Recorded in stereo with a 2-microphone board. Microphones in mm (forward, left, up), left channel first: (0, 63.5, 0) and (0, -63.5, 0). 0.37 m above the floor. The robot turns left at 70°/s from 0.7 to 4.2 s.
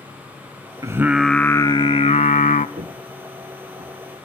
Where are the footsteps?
65° right (ahead or behind), 1.3 m; by 4.0 s 30° right (ahead or behind), 2.5 m.